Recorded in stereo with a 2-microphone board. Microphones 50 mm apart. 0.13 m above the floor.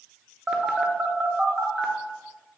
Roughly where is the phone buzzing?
Centre.